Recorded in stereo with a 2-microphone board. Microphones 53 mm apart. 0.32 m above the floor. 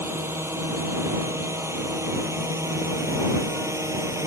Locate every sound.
0.0 s a drone: 55° right (ahead or behind); by 4.3 s 75° right (ahead or behind)